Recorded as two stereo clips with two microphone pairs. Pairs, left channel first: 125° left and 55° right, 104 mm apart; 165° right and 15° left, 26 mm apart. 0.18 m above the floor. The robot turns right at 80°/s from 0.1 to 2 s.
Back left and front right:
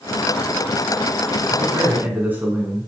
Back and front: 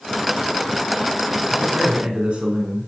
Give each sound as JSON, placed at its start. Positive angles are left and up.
{"t": 1.5, "sound": "a man speaking", "azimuth_deg": -30, "distance_m": 2.0}